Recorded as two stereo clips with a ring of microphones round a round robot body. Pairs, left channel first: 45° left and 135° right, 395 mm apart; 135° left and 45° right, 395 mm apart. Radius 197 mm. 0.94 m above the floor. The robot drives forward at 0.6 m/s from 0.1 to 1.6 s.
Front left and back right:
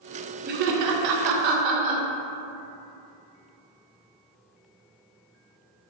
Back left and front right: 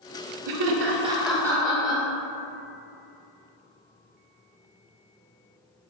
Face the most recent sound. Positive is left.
turn(degrees=-145)